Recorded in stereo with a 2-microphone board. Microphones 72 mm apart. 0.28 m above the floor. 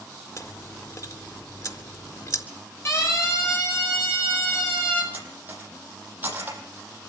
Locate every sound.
0.4 s chewing: 50° left (ahead or behind), 3.5 m
2.9 s a siren: 40° left (ahead or behind), 10 m; by 5.0 s 25° left (ahead or behind), 10 m
5.1 s cutlery clinking: 25° right (ahead or behind), 7 m